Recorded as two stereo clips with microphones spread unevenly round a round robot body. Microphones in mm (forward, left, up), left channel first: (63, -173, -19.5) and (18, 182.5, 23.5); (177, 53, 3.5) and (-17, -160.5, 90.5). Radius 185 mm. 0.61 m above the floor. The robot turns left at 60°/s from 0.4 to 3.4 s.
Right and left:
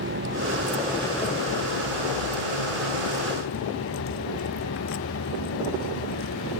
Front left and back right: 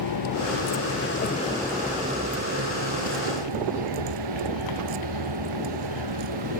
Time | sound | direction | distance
0.0 | a vehicle | 40° left | ?